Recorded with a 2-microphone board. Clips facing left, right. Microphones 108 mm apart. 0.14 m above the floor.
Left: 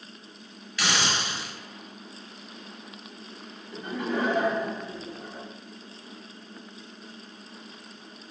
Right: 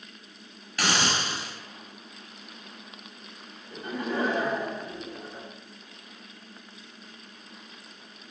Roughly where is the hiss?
Right.